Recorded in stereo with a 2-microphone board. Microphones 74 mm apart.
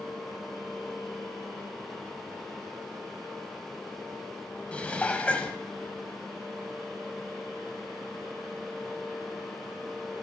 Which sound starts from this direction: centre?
Dishes clattering, at 4.7 s.